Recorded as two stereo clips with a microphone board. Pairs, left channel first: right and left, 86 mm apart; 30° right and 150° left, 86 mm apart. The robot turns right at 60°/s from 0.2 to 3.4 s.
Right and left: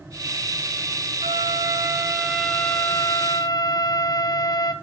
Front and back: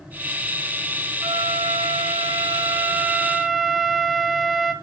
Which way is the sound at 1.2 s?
105° left.